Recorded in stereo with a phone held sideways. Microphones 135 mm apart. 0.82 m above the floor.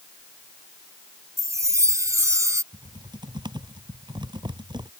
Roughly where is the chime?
Right.